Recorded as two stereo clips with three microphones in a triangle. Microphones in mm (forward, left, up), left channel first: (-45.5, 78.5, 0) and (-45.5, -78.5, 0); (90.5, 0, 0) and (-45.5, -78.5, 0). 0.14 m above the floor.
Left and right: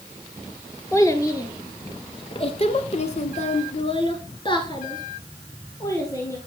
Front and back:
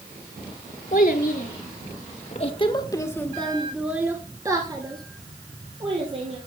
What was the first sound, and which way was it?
A child speaking, 20° left.